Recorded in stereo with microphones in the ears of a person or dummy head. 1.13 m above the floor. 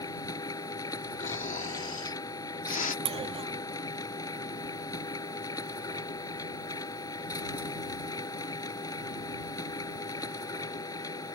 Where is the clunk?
25° right (ahead or behind).